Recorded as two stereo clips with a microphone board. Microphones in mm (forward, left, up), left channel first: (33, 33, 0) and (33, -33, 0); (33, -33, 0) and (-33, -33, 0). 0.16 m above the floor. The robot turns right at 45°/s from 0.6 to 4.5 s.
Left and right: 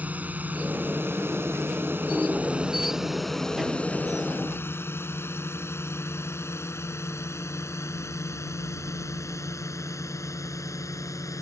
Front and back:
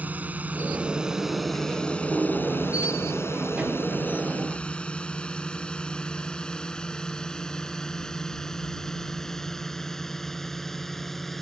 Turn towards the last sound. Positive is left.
turn(degrees=85)